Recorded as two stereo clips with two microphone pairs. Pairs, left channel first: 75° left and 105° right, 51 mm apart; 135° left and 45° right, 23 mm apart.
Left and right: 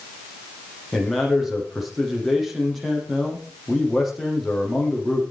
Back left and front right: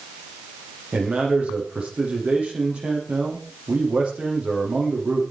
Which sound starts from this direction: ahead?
A man speaking, at 0.9 s.